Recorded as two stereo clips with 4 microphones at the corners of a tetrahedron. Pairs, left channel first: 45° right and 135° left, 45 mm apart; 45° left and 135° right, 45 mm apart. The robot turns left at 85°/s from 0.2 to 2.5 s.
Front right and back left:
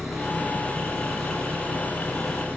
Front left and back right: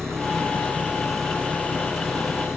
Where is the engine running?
140° right; by 2.6 s 20° left.